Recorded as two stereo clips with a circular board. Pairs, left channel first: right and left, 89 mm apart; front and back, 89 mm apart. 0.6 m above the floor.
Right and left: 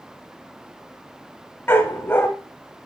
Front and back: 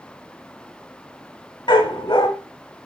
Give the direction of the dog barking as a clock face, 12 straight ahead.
1 o'clock.